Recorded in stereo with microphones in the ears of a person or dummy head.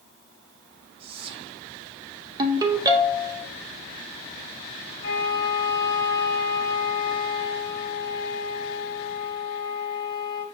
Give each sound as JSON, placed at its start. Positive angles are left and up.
{"t": 1.0, "sound": "whispering", "side_deg": -35, "distance_m": 0.7}
{"t": 2.4, "sound": "a ringtone", "side_deg": -25, "distance_m": 0.7}
{"t": 5.0, "sound": "a flute", "side_deg": 55, "distance_m": 1.4}